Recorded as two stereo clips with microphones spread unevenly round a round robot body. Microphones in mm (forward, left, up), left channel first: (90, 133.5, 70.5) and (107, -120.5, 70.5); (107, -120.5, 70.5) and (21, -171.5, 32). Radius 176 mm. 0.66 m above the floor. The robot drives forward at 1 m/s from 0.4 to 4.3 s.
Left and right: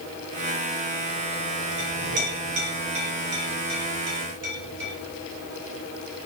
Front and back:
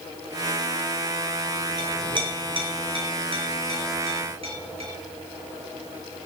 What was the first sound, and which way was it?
A clink, 105° right.